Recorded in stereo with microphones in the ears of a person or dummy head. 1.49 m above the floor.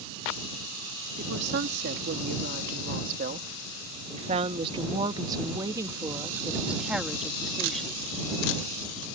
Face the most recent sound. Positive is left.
turn(degrees=10)  # may be behind; listen again after turning